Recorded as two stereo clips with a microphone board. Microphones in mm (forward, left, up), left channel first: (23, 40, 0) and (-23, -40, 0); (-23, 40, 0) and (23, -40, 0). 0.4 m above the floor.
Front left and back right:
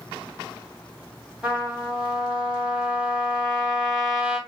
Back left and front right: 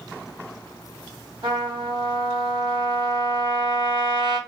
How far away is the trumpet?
About 1.4 m.